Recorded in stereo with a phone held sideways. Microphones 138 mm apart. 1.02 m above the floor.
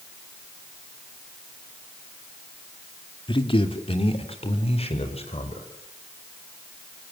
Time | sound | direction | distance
3.3 | a man speaking | 40° left (ahead or behind) | 2.5 m